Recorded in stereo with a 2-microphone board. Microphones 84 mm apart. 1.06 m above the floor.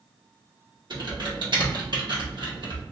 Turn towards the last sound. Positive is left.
turn(degrees=-65)  # may be behind; listen again after turning